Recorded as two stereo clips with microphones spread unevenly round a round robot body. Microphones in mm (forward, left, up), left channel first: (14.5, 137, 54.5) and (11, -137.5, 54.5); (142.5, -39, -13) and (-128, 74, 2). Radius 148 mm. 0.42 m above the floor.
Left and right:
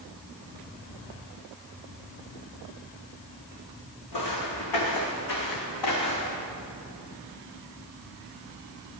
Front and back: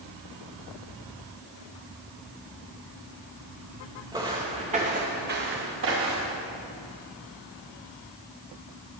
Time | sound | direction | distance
4.1 | footsteps | 80° left | 2 m